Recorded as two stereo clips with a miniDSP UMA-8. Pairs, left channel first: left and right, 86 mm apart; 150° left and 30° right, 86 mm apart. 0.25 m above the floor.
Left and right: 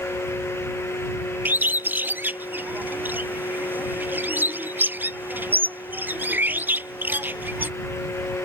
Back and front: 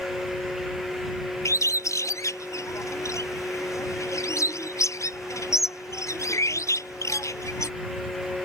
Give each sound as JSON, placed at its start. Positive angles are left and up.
{"t": 1.4, "sound": "a bird", "azimuth_deg": -160}